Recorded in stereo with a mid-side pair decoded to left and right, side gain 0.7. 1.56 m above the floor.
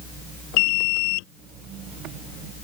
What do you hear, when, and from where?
0.6 s an alarm: 70° left